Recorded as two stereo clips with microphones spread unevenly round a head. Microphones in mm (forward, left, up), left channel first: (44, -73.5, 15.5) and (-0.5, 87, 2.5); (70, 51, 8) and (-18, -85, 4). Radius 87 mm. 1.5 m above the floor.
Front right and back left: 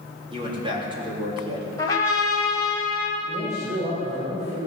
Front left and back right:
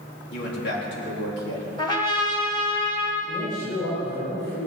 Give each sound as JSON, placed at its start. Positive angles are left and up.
{"t": 0.3, "sound": "a man speaking", "azimuth_deg": 45, "distance_m": 3.5}
{"t": 1.8, "sound": "a trumpet", "azimuth_deg": -5, "distance_m": 4.0}
{"t": 3.2, "sound": "a man speaking", "azimuth_deg": 80, "distance_m": 6.0}